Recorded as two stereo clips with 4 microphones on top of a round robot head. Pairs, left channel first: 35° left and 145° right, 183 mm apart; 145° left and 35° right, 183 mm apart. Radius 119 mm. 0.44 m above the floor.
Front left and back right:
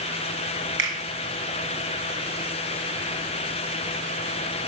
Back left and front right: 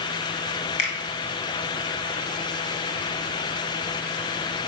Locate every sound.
0.8 s a finger snap: 165° right, 3 m